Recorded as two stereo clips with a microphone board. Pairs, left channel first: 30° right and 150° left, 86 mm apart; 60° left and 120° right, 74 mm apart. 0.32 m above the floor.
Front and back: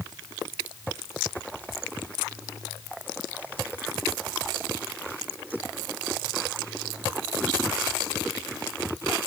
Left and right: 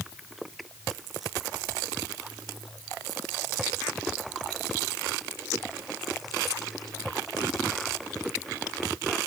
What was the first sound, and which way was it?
Only background noise.